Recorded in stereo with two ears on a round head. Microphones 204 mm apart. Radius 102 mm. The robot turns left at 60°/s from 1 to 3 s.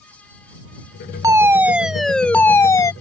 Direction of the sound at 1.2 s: 15° right (ahead or behind).